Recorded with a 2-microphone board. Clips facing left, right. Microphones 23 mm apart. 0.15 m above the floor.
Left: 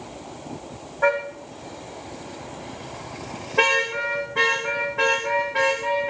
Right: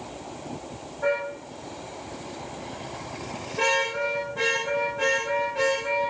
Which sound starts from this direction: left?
A car horn, at 1.0 s.